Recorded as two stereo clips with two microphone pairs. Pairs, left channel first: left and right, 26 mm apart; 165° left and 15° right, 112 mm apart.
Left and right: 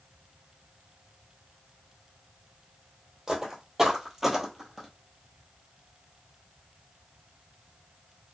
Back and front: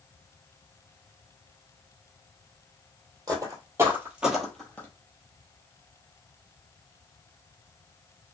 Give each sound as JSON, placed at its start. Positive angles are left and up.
{"t": 3.3, "sound": "footsteps", "azimuth_deg": -30, "distance_m": 1.2}